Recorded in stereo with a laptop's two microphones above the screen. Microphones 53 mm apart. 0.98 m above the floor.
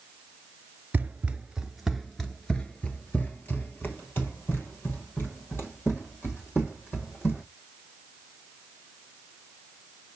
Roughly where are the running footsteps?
Right.